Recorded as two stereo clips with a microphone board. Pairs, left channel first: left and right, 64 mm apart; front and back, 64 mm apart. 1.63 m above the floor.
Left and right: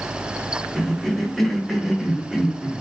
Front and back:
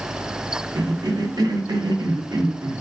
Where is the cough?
Straight behind, 0.7 m.